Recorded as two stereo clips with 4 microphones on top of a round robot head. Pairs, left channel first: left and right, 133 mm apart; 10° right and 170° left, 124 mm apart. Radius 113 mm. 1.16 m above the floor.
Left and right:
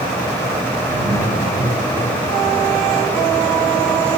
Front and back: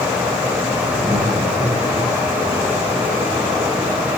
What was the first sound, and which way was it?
Laughter, 105° right.